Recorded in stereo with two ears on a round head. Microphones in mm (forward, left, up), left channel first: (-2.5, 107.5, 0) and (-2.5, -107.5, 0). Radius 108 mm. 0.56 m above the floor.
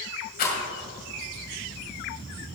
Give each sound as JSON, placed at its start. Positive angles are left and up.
{"t": 0.4, "sound": "a rattle", "side_deg": 40, "distance_m": 2.5}